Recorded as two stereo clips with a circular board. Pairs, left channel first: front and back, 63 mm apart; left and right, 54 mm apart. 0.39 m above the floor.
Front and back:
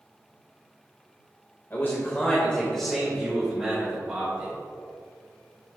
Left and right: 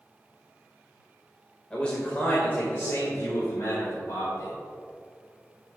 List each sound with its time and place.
1.7 s a man speaking: 20° left, 1.6 m; by 4.5 s 110° left, 3.5 m